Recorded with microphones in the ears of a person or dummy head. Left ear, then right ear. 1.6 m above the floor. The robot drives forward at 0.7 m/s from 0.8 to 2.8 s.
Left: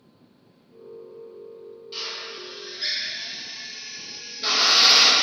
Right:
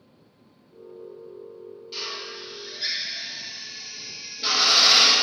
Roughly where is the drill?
Centre.